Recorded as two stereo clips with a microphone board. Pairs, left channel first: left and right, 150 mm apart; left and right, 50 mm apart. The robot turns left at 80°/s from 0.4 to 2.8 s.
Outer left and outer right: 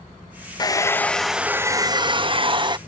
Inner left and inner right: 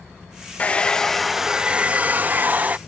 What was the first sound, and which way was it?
A hair dryer, 55° left.